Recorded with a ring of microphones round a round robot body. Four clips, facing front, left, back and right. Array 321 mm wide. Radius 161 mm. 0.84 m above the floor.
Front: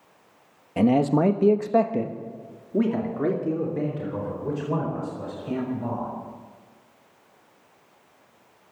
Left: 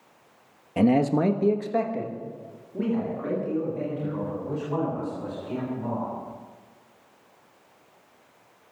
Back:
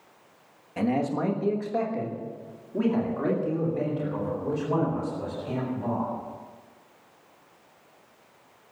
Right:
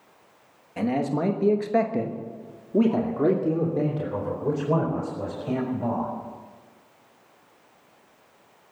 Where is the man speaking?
45° left, 1.5 m; by 6.1 s 80° right, 6.5 m.